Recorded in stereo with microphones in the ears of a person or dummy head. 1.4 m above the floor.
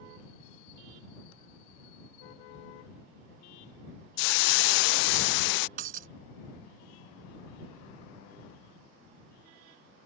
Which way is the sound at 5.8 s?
50° right (ahead or behind).